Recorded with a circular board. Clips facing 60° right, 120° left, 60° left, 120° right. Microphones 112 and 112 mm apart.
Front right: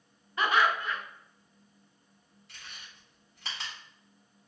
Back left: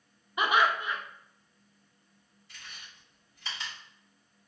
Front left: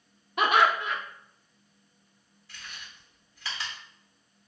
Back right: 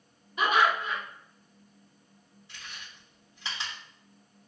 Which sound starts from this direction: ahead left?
Laughter, at 0.4 s.